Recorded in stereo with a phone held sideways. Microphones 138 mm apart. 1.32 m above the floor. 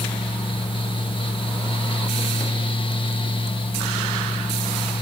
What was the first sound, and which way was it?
A fan, 40° left (ahead or behind).